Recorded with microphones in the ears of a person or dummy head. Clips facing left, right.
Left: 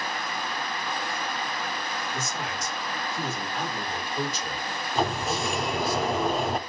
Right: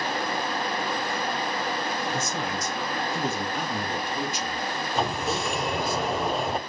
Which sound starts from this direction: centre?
A sliding door, at 5.0 s.